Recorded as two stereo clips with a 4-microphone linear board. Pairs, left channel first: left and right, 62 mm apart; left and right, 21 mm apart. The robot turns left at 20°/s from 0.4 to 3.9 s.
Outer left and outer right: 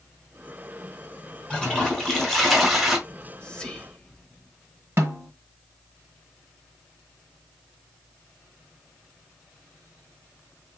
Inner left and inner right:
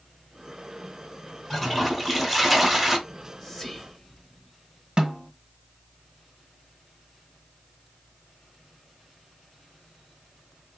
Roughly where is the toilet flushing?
Centre.